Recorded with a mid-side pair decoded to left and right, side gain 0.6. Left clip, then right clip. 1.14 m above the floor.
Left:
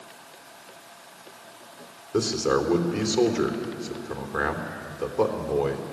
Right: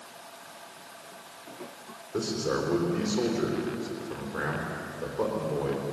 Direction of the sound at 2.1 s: 45° left.